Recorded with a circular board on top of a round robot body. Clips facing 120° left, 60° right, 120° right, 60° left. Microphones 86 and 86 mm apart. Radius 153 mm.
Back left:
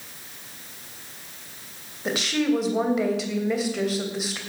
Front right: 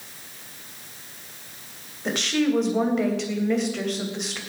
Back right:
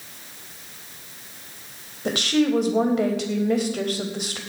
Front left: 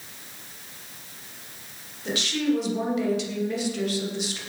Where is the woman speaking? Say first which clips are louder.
Even, back right 4 dB; 155° right, 3 m.